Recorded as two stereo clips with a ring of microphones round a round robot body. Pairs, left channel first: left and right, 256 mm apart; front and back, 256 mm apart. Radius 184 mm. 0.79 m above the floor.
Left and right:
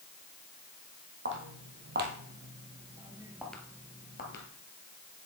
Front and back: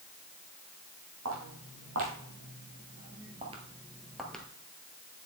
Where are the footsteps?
130° right, 1.9 m; by 4.5 s 85° left, 0.9 m.